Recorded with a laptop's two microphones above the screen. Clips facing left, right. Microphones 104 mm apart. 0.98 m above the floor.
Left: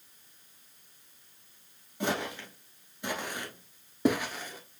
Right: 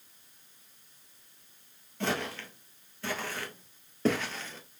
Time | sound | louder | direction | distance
2.0 | footsteps | left 1 dB | 15° left (ahead or behind) | 1.2 m